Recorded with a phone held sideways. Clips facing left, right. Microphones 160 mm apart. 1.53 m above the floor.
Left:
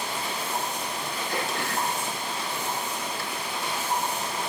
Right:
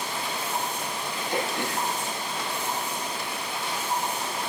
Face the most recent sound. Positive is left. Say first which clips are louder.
# right 2 dB
turn(degrees=-20)  # may be behind; listen again after turning